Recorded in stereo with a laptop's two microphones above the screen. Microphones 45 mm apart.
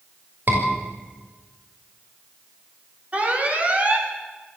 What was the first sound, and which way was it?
A scream, 45° right (ahead or behind).